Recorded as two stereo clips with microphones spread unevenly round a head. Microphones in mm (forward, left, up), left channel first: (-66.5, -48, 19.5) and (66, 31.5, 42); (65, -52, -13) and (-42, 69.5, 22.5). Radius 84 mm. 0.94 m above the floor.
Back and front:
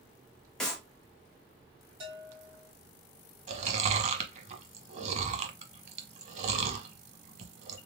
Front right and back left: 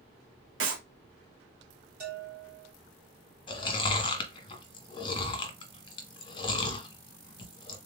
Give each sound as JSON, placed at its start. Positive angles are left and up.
{"t": 0.6, "sound": "a clap", "azimuth_deg": 125, "distance_m": 1.7}
{"t": 2.0, "sound": "a bell", "azimuth_deg": 85, "distance_m": 2.5}
{"t": 3.5, "sound": "chewing", "azimuth_deg": -10, "distance_m": 1.2}